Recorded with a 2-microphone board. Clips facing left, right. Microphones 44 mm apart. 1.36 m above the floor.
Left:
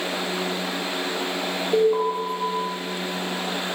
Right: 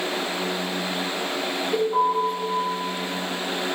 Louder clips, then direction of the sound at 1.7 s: Left 2 dB; 10° left (ahead or behind).